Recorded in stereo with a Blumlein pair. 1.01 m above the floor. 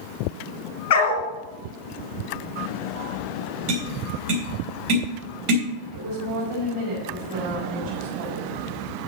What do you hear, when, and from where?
0.9 s a dog barking: 50° left, 2.5 m
3.7 s tapping: 40° right, 3.5 m
5.9 s a woman speaking: 45° right, 5 m